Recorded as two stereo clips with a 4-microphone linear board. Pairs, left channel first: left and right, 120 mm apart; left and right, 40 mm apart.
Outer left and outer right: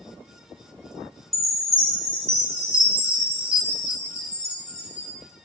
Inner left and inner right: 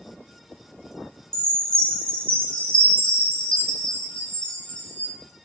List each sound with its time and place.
1.3 s a chime: 30° left (ahead or behind), 1.9 m